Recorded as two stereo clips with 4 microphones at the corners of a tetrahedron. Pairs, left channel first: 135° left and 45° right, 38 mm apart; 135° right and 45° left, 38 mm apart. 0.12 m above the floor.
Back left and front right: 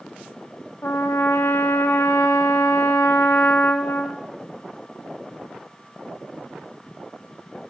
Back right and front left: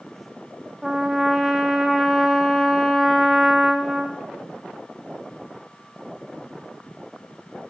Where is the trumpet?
130° left, 1.5 m.